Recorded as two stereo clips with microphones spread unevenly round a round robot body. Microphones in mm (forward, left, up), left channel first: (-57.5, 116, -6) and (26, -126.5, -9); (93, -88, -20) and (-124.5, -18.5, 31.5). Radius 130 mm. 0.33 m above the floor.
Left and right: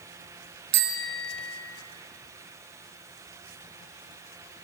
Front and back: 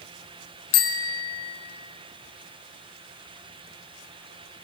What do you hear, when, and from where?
0.7 s a bicycle bell: 20° right, 2 m